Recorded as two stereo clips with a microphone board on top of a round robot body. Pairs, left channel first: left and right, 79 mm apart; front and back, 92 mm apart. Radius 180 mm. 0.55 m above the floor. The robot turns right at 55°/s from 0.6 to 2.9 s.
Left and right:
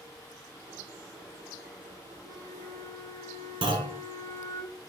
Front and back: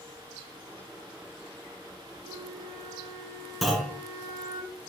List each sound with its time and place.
2.2 s a flute: 15° left, 5.5 m; by 4.6 s 50° left, 5.5 m
3.6 s a clunk: 90° right, 1.9 m